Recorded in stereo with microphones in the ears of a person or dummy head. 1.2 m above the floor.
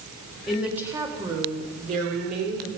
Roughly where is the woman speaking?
Centre.